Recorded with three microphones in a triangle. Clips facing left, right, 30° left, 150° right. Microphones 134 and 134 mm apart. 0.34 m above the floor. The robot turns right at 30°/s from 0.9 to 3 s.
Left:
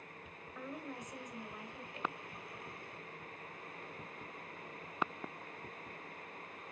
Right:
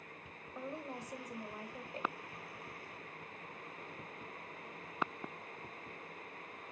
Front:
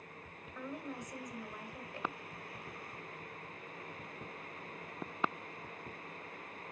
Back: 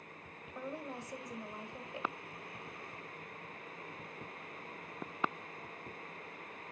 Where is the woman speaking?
120° right, 1.7 m; by 2.2 s 85° right, 1.7 m.